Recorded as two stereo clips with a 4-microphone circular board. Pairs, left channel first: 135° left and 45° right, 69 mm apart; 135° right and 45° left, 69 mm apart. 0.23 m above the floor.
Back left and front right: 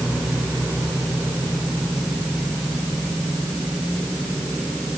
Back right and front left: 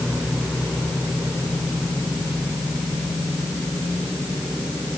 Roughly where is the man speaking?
No man speaking in this recording.